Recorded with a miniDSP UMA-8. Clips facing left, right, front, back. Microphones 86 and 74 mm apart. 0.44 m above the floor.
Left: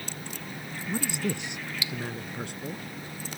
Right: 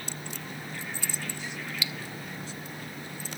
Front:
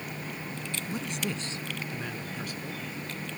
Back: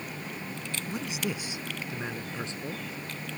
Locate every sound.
0.9 s a man speaking: 95° left; by 2.8 s 120° left